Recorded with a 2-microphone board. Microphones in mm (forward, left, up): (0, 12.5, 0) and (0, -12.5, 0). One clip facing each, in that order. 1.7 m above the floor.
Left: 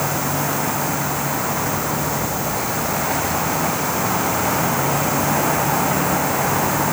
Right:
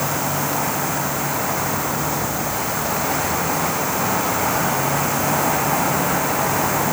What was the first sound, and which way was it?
Only background noise.